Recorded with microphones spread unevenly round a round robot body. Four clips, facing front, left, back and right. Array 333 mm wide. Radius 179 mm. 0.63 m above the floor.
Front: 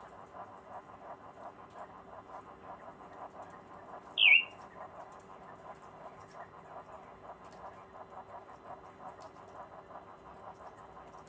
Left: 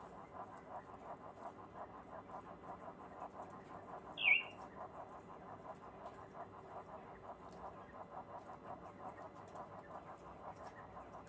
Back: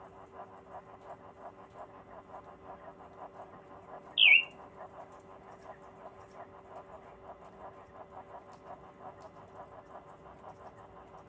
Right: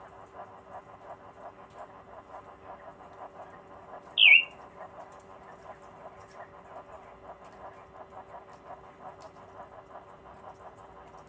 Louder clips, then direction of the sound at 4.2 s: Right 14 dB, back 1 dB; 105° right.